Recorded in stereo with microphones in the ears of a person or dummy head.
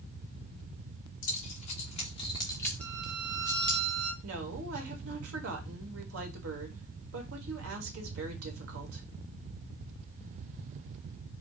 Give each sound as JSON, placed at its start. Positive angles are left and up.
{"t": 1.2, "sound": "keys jangling", "side_deg": 50, "distance_m": 1.4}
{"t": 2.8, "sound": "a violin", "side_deg": -75, "distance_m": 2.0}
{"t": 4.2, "sound": "a woman speaking", "side_deg": -80, "distance_m": 1.5}